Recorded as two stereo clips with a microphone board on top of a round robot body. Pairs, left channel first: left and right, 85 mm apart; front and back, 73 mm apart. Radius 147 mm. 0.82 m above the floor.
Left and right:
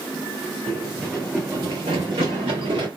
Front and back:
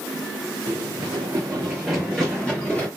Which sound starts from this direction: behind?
Running footsteps, at 0.7 s.